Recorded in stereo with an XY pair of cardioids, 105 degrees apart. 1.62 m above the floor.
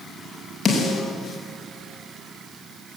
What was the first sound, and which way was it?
A snare drum, 30° left.